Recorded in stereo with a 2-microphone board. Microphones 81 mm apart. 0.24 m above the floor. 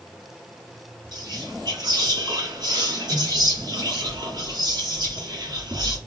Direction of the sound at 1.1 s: 60° right (ahead or behind).